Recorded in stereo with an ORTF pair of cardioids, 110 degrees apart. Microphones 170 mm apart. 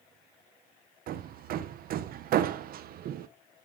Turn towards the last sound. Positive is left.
turn(degrees=-60)